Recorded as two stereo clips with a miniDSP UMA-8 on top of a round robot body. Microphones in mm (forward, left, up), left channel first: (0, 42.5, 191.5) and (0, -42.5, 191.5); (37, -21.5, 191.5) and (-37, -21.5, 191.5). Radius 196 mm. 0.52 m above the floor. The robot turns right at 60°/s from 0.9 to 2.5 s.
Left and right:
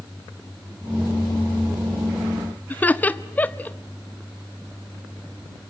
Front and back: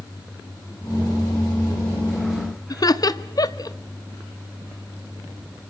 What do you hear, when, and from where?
2.7 s laughter: 20° left, 1.1 m